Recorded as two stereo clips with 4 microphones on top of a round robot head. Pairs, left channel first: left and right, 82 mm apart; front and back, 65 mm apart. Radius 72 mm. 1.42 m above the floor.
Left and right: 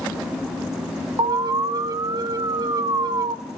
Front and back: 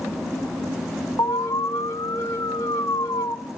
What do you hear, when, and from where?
1.2 s an alarm: 55° right, 1.5 m